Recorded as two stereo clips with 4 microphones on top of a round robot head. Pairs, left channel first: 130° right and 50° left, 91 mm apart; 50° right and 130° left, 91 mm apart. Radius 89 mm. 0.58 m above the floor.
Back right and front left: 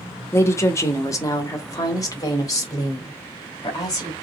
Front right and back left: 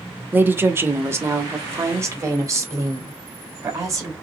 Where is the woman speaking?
175° right, 1.0 m.